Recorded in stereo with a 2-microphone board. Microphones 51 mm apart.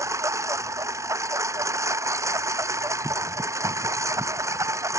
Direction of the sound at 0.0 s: 85° right.